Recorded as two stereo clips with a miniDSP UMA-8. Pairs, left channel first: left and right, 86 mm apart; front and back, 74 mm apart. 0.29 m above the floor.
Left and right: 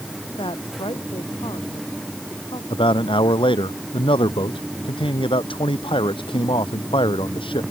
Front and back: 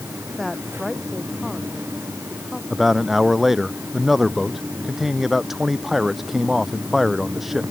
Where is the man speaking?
95° left.